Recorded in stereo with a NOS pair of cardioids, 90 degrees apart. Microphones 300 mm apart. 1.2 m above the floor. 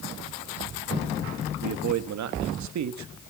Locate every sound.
1.6 s a man speaking: 60° right, 1.5 m